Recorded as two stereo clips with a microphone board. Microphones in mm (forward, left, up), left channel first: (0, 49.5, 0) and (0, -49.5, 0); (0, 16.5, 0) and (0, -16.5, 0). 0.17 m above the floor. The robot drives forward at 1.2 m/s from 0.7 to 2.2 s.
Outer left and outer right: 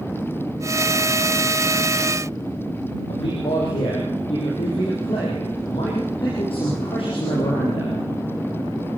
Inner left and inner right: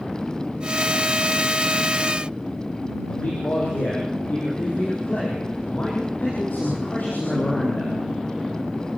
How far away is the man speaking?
About 5 m.